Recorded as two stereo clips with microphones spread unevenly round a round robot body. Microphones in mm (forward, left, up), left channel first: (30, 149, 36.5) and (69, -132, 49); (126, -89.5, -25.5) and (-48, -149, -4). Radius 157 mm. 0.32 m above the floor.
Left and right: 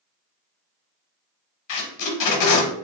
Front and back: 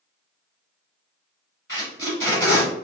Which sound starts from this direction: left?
Tape being pulled, at 1.7 s.